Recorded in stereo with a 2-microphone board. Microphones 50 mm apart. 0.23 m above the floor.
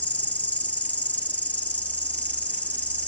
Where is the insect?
30° left (ahead or behind), 0.7 m.